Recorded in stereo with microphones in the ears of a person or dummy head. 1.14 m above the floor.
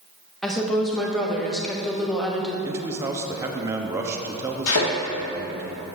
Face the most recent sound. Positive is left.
turn(degrees=70)  # may be behind; listen again after turning